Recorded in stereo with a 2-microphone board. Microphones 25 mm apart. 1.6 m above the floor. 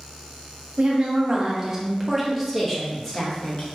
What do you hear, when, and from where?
0.8 s a woman speaking: 45° right (ahead or behind), 1.0 m; by 3.7 s 25° left (ahead or behind), 1.5 m